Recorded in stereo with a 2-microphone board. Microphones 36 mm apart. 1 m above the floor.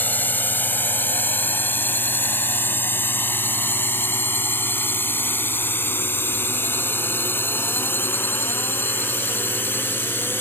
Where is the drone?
60° left (ahead or behind); by 10.4 s 85° left.